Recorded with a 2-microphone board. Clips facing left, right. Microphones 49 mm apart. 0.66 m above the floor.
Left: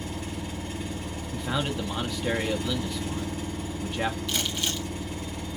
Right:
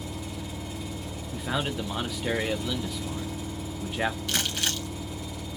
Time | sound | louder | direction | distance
0.0 | an engine running | left 2 dB | 50° left (ahead or behind) | 0.9 m
1.3 | a man speaking | even | 5° right (ahead or behind) | 0.6 m
4.3 | crumpling | even | 70° right (ahead or behind) | 1.9 m